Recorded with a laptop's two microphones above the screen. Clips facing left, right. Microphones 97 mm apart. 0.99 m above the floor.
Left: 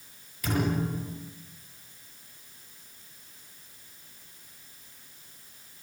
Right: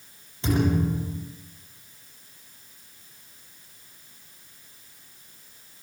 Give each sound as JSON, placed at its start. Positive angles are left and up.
{"t": 0.4, "sound": "a thud", "side_deg": -25, "distance_m": 8.0}